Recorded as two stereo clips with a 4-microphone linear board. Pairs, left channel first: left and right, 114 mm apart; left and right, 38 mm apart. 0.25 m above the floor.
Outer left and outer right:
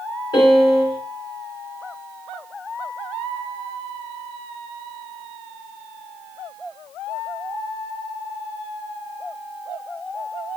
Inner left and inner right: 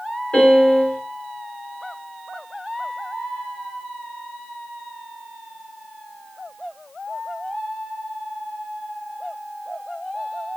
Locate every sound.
0.3 s a piano: 40° left (ahead or behind), 1.0 m